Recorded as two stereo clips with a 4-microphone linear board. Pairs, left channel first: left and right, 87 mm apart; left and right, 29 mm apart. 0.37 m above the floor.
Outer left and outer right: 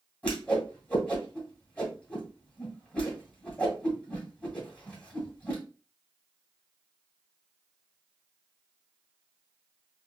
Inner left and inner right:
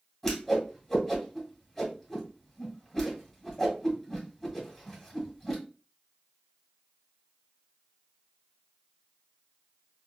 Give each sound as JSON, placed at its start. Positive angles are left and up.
{"t": 0.2, "sound": "a whoosh", "side_deg": 15, "distance_m": 2.0}